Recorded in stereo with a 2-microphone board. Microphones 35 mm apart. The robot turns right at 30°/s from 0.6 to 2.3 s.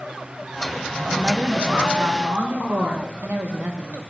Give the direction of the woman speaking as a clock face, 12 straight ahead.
5 o'clock.